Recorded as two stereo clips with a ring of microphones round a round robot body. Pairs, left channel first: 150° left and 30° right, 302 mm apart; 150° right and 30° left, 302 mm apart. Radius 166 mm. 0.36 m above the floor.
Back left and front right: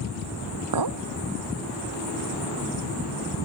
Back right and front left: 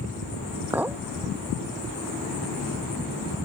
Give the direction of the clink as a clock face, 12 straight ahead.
2 o'clock.